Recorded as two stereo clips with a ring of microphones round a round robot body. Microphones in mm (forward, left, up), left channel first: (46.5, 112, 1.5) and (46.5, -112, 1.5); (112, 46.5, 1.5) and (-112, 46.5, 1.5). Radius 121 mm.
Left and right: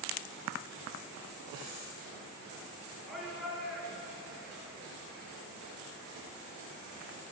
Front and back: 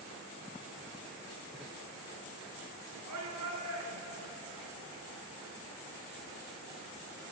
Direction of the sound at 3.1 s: Straight behind.